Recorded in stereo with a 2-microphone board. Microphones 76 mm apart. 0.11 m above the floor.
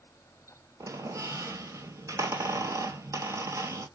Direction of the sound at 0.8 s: 45° right (ahead or behind).